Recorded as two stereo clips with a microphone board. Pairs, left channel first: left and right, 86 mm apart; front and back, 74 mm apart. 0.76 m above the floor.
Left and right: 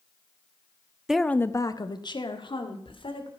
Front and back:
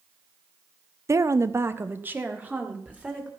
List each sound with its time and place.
1.1 s a woman speaking: 170° right, 0.6 m; by 3.3 s 105° left, 2.5 m